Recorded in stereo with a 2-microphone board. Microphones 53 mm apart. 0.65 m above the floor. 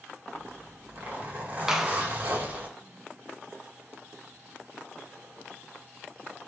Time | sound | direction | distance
0.3 | a zipper | 35° right (ahead or behind) | 1.6 m
1.7 | a clap | 10° right (ahead or behind) | 0.6 m